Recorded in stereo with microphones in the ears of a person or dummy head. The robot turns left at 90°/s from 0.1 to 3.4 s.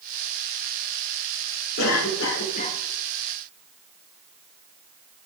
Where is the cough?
115° left, 1.9 m; by 2.8 s 25° left, 1.9 m.